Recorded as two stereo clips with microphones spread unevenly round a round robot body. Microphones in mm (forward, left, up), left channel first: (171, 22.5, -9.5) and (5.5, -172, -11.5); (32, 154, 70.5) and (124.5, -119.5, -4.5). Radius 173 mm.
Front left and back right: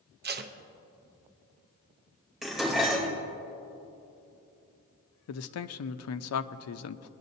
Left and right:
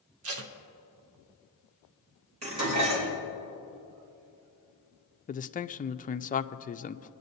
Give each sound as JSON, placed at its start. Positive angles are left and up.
{"t": 0.2, "sound": "tape being pulled", "azimuth_deg": -85, "distance_m": 0.8}
{"t": 2.4, "sound": "dishes clattering", "azimuth_deg": -40, "distance_m": 3.5}
{"t": 5.3, "sound": "a man speaking", "azimuth_deg": 40, "distance_m": 0.5}